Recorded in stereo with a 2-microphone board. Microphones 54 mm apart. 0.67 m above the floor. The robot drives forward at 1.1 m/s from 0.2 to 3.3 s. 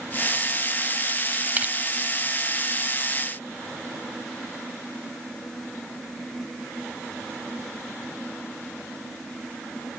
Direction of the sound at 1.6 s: 30° right (ahead or behind).